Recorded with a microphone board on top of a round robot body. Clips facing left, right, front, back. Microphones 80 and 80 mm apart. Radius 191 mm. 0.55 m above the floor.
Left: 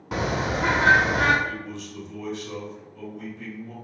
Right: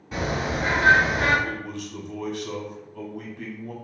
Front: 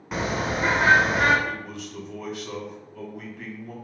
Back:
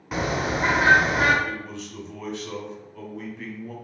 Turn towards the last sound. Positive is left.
turn(degrees=-80)